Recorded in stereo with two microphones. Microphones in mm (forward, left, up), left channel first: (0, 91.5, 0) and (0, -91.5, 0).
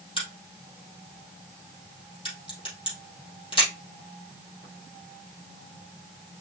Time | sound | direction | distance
0.2 | a crack | 30° left (ahead or behind) | 3.5 m